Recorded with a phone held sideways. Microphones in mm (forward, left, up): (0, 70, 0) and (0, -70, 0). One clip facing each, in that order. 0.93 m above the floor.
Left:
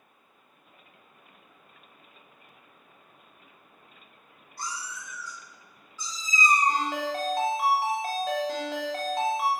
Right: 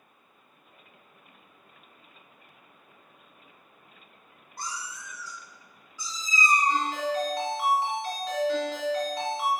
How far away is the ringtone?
About 0.6 m.